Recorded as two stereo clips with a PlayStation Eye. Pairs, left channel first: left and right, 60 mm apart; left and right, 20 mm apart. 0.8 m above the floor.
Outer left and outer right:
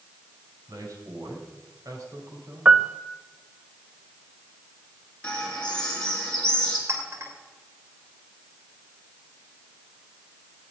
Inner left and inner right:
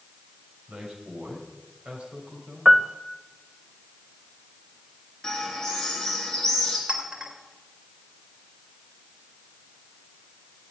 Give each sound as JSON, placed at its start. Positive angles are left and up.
{"t": 0.7, "sound": "a man speaking", "side_deg": -75, "distance_m": 4.5}
{"t": 2.6, "sound": "a piano", "side_deg": -20, "distance_m": 0.6}
{"t": 5.2, "sound": "a bird", "side_deg": 15, "distance_m": 3.5}
{"t": 6.9, "sound": "a clink", "side_deg": -50, "distance_m": 2.5}